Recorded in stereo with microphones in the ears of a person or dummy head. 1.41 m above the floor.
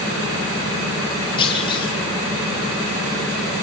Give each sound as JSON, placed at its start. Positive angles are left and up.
{"t": 1.4, "sound": "a clunk", "side_deg": 30, "distance_m": 2.5}